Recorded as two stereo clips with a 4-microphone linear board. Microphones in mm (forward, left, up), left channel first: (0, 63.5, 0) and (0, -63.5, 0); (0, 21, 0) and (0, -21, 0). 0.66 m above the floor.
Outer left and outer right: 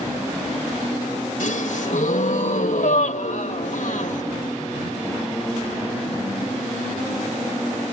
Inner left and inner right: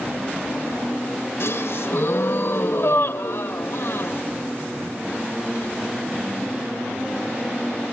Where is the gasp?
70° left (ahead or behind), 2.5 m.